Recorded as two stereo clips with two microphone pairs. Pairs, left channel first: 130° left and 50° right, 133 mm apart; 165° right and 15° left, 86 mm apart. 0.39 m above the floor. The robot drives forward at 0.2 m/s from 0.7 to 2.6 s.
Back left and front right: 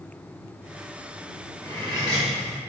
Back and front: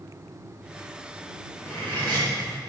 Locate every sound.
1.6 s cutlery clinking: 100° right, 2 m; by 2.3 s 105° right, 2 m